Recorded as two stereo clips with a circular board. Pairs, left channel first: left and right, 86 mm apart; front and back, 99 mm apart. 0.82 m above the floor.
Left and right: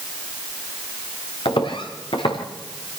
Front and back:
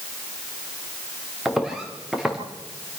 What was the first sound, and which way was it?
Footsteps, 95° left.